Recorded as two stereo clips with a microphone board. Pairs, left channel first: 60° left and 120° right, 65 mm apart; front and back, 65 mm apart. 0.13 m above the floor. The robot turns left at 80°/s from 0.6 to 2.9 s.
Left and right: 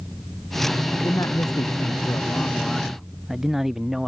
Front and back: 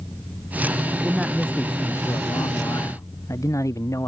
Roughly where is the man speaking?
Behind left.